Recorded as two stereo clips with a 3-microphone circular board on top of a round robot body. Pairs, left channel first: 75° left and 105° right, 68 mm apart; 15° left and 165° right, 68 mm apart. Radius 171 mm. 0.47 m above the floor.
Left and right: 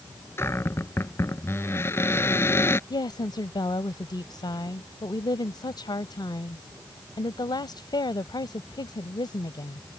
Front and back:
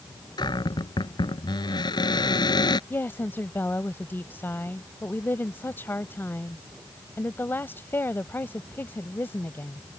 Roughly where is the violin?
No violin in this recording.